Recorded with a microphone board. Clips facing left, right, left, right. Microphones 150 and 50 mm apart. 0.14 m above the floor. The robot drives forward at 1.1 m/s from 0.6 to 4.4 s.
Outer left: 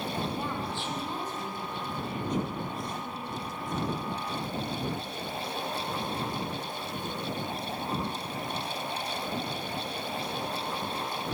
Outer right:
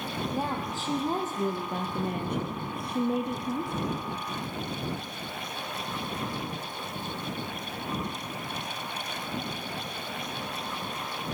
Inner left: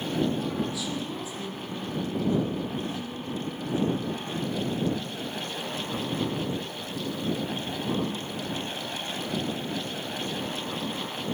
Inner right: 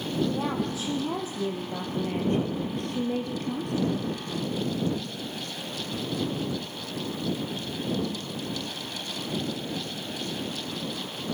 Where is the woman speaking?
40° right (ahead or behind), 4 m; by 3.9 s 65° right (ahead or behind), 3 m.